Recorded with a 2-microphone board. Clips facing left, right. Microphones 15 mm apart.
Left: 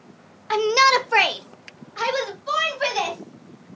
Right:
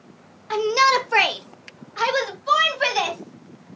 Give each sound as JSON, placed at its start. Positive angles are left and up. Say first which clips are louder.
{"t": 0.5, "sound": "a shout", "louder": "left 1 dB", "side_deg": 30, "distance_m": 0.9}